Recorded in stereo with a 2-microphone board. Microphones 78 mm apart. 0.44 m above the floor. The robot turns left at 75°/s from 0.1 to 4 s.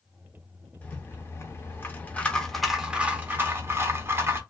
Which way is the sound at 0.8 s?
135° left.